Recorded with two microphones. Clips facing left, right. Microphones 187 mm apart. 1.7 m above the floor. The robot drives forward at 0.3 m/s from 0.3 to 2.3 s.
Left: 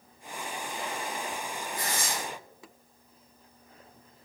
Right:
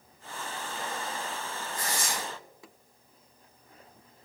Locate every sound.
1.7 s tearing paper: 20° left (ahead or behind), 1.4 m